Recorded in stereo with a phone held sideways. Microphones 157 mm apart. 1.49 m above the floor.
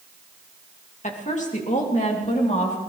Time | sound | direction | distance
1.0 | a woman speaking | 45° left (ahead or behind) | 2.5 m